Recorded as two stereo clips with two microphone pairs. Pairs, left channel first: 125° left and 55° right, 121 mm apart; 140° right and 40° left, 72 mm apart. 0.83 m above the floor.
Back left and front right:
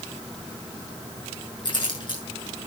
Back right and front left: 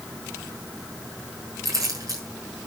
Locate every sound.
1.6 s keys jangling: 75° left, 7.5 m